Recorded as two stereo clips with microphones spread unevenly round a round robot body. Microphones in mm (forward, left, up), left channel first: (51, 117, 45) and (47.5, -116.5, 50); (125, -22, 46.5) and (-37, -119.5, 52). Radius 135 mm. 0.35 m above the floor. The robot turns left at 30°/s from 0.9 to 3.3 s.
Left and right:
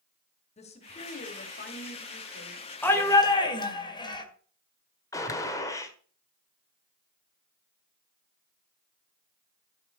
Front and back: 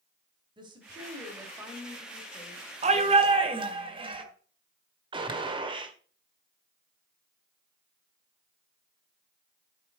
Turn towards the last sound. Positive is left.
turn(degrees=160)